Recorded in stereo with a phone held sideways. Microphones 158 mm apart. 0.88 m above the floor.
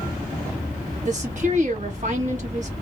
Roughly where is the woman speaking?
Right.